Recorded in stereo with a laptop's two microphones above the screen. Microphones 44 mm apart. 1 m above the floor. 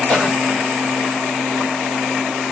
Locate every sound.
0.1 s a cough: 10° right (ahead or behind), 3 m